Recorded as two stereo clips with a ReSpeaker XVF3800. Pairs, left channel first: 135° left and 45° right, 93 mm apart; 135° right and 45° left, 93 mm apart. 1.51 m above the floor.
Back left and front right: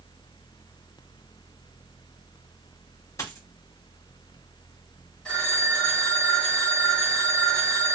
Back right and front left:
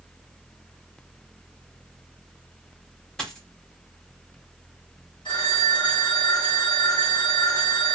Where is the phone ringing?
150° right, 1.6 m.